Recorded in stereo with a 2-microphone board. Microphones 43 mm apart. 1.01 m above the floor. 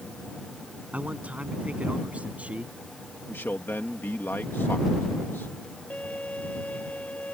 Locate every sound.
0.9 s a man speaking: 35° right (ahead or behind)
3.3 s a man speaking: 60° left (ahead or behind)
5.9 s a violin: 35° left (ahead or behind)